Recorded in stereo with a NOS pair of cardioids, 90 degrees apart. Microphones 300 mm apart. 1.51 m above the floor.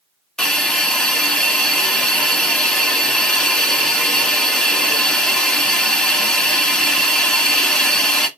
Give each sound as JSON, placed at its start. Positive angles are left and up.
{"t": 0.4, "sound": "a hiss", "azimuth_deg": 0, "distance_m": 0.8}